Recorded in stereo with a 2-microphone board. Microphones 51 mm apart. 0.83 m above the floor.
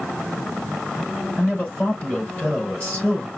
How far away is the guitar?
No guitar in this recording.